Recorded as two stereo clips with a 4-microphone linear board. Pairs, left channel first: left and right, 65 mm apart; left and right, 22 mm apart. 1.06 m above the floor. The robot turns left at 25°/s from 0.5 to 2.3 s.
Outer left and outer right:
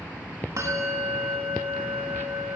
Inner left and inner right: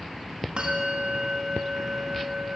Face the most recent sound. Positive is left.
turn(degrees=-100)